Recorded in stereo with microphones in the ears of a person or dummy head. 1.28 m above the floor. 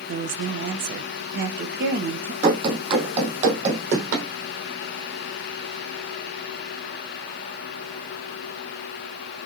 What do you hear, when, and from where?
0.1 s a woman speaking: 65° right (ahead or behind), 0.8 m
2.4 s running footsteps: 20° right (ahead or behind), 2.5 m; by 4.3 s 45° right (ahead or behind), 2.5 m